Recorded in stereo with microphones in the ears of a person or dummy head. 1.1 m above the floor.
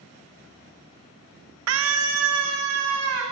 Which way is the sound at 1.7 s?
70° right (ahead or behind).